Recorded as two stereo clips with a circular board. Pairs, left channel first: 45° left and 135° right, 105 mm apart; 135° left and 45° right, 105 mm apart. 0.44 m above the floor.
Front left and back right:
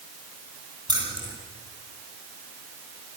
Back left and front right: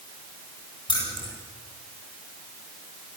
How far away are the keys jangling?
About 9.5 m.